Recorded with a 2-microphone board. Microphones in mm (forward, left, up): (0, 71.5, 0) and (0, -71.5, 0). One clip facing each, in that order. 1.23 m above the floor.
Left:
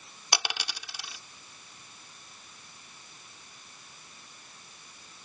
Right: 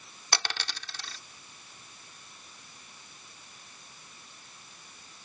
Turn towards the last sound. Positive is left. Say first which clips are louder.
# left 1 dB
turn(degrees=10)  # may be behind; listen again after turning